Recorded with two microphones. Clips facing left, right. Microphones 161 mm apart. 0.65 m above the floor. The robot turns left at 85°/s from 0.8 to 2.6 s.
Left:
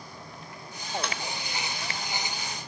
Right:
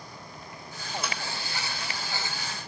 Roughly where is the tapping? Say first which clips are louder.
Left 1 dB; centre.